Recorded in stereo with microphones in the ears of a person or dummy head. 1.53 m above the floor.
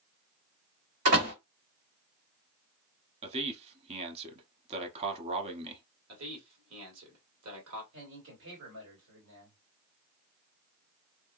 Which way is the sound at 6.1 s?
85° right.